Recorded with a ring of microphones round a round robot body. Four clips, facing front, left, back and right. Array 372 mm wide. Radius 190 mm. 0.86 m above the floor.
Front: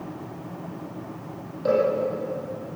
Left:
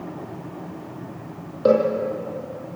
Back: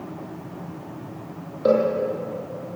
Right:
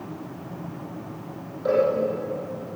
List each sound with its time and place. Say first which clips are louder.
1.6 s a cowbell: left 4 dB, back 3 dB; 115° left, 7 m